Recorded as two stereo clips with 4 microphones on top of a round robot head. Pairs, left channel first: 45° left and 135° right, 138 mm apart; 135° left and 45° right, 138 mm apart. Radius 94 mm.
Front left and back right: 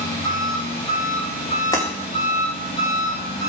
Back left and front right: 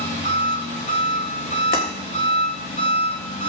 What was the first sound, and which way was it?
An engine running, 100° left.